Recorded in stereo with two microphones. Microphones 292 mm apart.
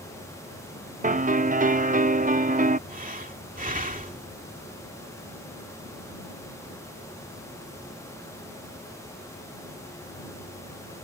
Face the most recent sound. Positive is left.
turn(degrees=-30)  # may be behind; listen again after turning